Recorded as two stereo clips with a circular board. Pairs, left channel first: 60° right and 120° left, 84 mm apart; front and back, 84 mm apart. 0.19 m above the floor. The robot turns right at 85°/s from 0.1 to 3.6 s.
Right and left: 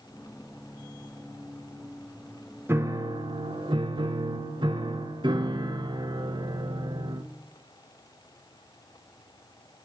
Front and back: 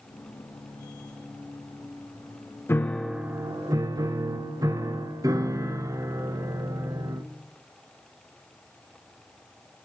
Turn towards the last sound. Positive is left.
turn(degrees=135)